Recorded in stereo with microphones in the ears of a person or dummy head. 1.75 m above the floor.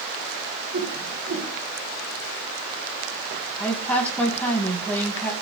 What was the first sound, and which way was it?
A whoosh, 65° right (ahead or behind).